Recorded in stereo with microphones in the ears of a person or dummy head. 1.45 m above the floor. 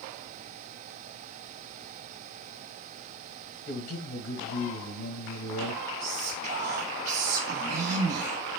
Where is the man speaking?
65° left (ahead or behind), 1.5 m.